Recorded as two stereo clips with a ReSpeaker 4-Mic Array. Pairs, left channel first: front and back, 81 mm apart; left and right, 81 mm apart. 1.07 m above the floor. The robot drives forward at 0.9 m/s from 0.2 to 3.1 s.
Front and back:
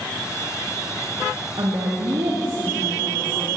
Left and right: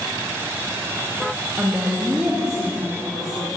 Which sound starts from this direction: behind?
A woman speaking, at 1.6 s.